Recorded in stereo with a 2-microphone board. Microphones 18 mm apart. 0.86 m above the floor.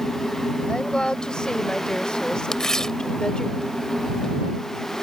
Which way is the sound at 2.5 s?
30° left (ahead or behind).